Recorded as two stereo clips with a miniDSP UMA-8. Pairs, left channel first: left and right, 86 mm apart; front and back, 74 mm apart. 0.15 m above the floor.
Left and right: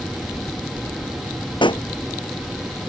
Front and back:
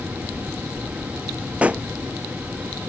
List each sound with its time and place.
1.6 s a pop: 110° left